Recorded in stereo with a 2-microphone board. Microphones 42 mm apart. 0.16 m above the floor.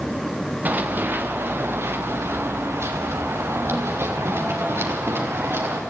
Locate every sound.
0.7 s running footsteps: 45° right (ahead or behind), 2.5 m; by 5.8 s 75° right (ahead or behind), 4.5 m